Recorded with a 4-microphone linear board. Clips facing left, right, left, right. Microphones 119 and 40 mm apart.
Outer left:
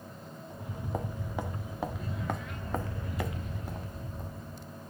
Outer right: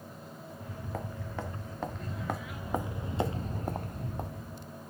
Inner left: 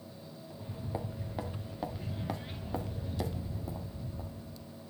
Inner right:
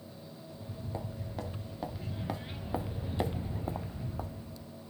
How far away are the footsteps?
About 1.9 m.